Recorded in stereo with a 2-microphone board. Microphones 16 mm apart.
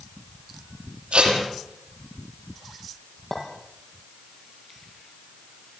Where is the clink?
20° left (ahead or behind), 7.5 m.